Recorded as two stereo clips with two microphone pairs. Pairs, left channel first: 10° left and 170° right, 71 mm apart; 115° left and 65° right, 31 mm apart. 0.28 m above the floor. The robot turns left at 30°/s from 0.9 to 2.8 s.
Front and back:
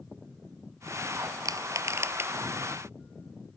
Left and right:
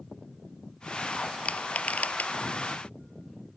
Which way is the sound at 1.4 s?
155° left.